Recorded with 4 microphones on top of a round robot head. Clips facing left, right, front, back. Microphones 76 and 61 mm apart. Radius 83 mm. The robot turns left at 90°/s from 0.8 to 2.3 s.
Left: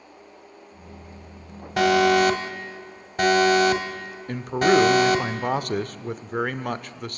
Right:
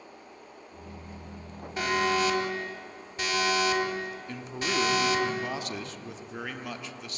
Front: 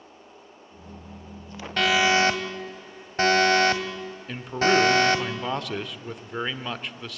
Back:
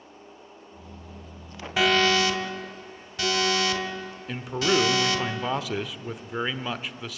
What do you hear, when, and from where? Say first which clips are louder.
1.8 s an alarm: left 9 dB, front 1 dB; 100° left, 1.8 m; by 5.2 s 50° left, 1.8 m
4.3 s a man speaking: left 15 dB, front 3 dB; 95° left, 1.1 m